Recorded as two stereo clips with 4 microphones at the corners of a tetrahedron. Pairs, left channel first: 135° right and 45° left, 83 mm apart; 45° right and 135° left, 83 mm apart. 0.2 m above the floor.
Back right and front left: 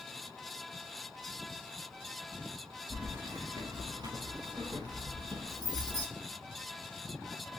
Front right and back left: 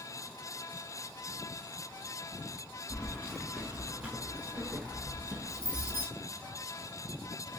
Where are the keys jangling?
25° left, 0.7 m; by 6.1 s 75° left, 2 m.